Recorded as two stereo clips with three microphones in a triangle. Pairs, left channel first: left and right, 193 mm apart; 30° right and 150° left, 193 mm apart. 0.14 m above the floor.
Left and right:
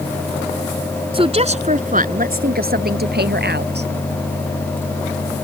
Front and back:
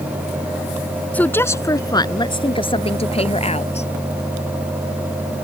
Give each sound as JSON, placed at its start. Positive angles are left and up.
{"t": 1.1, "sound": "a woman speaking", "azimuth_deg": -105}